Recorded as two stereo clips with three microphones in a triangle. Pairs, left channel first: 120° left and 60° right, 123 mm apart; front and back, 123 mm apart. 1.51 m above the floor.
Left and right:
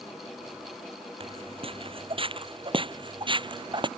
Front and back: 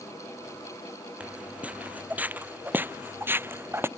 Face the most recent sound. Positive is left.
turn(degrees=-110)